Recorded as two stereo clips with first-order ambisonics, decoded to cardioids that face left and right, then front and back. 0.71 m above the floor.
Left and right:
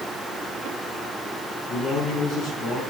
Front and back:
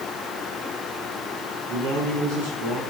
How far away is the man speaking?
About 6.5 m.